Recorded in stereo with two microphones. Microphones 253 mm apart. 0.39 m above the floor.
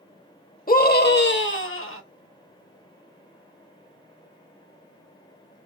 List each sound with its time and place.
0.7 s a scream: 35° left (ahead or behind), 0.9 m; by 2.0 s 55° left (ahead or behind), 1.3 m